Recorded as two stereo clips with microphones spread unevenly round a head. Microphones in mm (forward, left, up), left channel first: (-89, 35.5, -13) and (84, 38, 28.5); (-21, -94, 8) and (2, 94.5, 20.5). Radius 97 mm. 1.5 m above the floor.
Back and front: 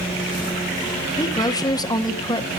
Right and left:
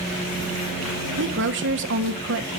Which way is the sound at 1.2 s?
115° left.